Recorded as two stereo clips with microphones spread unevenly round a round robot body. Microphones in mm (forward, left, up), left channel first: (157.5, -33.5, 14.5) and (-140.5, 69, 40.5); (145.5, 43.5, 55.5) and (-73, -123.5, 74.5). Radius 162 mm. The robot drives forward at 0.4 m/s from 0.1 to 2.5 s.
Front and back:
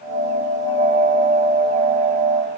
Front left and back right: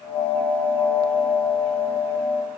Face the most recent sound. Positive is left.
No sound to turn to.